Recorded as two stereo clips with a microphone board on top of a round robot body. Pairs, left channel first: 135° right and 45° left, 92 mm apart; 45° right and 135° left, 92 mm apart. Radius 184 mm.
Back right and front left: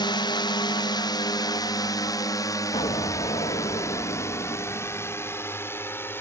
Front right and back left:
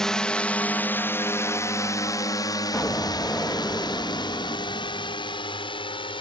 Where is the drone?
125° right; by 6.2 s 70° right.